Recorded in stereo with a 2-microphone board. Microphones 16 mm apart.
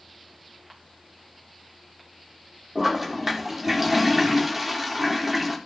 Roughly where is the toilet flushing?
Centre.